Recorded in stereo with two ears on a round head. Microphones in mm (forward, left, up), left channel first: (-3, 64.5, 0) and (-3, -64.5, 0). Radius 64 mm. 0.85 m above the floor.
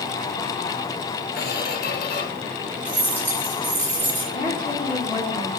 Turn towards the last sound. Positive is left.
turn(degrees=35)  # may be behind; listen again after turning